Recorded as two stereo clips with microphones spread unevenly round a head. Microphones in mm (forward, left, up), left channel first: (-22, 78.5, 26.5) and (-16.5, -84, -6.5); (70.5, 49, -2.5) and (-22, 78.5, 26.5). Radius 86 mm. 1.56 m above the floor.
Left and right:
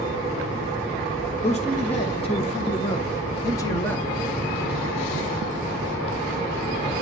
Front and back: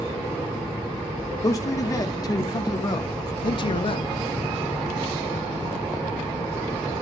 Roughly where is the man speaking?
Ahead left.